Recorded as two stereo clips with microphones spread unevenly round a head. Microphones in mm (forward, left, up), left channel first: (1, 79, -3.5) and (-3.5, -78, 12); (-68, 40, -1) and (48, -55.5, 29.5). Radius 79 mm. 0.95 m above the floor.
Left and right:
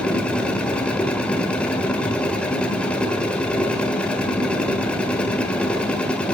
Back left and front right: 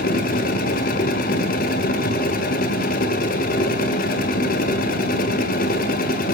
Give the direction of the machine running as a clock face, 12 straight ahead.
6 o'clock.